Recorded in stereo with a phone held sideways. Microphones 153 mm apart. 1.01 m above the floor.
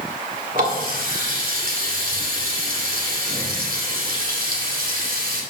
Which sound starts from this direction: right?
A running tap, at 0.6 s.